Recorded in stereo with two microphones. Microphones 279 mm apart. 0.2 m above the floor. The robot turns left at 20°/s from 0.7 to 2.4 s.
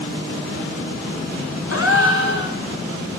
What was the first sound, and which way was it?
A gasp, 55° left (ahead or behind).